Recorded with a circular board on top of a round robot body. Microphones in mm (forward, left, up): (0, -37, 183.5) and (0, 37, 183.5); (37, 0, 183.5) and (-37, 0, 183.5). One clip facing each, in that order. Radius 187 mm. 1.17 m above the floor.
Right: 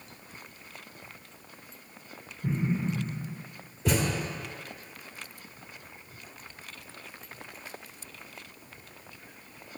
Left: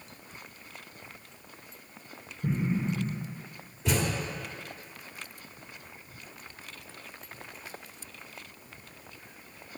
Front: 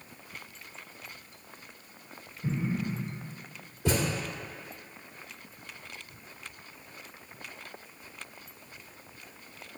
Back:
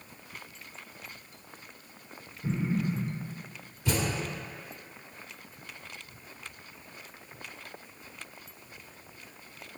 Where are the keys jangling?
I don't hear keys jangling.